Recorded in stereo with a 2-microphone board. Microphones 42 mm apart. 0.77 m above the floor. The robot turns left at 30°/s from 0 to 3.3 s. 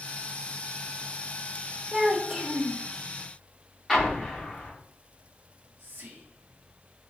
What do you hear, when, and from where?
1.9 s a child speaking: 15° right (ahead or behind), 0.6 m; by 2.8 s 10° left (ahead or behind), 0.6 m
3.9 s an explosion: 10° left (ahead or behind), 0.8 m
5.5 s whispering: 50° right (ahead or behind), 1.0 m